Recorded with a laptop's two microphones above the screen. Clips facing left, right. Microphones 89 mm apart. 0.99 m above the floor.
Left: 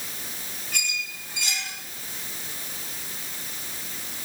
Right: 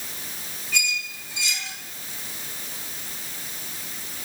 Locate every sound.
0.7 s a squeak: 55° left (ahead or behind), 2 m